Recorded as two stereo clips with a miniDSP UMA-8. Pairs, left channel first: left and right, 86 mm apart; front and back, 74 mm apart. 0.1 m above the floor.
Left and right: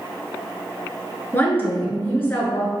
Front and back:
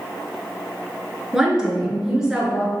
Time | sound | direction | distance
1.3 | a woman speaking | 110° left | 1.2 m